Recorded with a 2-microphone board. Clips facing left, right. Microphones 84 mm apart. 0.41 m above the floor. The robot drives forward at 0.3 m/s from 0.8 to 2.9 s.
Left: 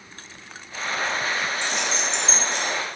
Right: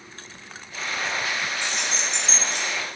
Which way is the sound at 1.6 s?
60° right (ahead or behind).